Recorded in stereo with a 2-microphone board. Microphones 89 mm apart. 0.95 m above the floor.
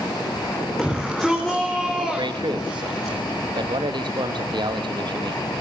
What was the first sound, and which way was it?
A shout, 5° left (ahead or behind).